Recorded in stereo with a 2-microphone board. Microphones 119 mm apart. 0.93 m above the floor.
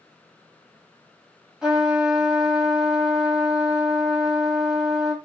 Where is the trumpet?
5° right (ahead or behind), 1.4 m.